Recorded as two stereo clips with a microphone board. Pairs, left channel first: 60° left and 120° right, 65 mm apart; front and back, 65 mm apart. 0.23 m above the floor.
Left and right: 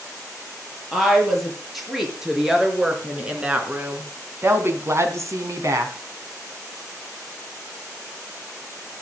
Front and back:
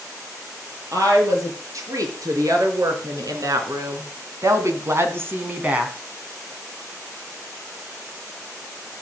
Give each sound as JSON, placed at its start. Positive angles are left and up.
{"t": 0.9, "sound": "a woman speaking", "azimuth_deg": 150, "distance_m": 5.5}